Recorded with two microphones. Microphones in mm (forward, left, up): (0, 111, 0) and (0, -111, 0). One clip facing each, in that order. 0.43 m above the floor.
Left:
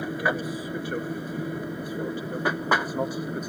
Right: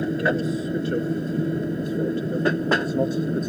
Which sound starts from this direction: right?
An aircraft, at 0.0 s.